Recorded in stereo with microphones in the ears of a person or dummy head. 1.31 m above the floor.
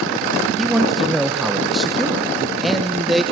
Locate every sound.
0.6 s a man speaking: centre (ahead or behind), 1.0 m